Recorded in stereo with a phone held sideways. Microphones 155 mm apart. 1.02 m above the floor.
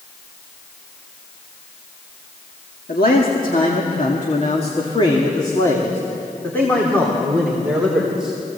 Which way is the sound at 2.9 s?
75° left (ahead or behind).